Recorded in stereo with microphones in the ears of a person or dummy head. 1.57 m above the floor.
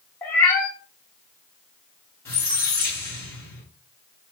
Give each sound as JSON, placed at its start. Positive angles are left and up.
{"t": 0.2, "sound": "a cat meowing", "side_deg": 10, "distance_m": 1.3}
{"t": 2.2, "sound": "a squeak", "side_deg": 15, "distance_m": 1.2}